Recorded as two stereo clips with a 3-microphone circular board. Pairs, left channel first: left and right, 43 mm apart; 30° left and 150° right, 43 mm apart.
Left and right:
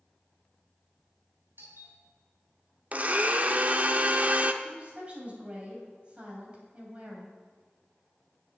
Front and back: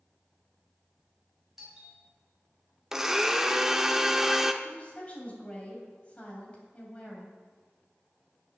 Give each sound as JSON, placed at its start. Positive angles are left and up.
{"t": 1.6, "sound": "a doorbell", "azimuth_deg": -65, "distance_m": 4.5}
{"t": 2.9, "sound": "a blender", "azimuth_deg": -80, "distance_m": 0.6}
{"t": 4.6, "sound": "a woman speaking", "azimuth_deg": -30, "distance_m": 3.0}